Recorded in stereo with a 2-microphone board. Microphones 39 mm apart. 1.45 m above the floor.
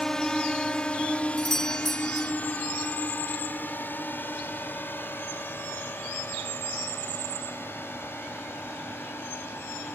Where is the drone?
15° left (ahead or behind); by 10.0 s 75° left (ahead or behind).